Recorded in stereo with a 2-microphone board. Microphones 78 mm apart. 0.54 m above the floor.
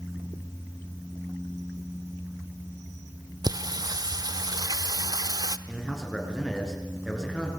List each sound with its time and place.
3.4 s singing: 55° right (ahead or behind), 0.8 m
5.7 s a man speaking: 5° left (ahead or behind), 6.5 m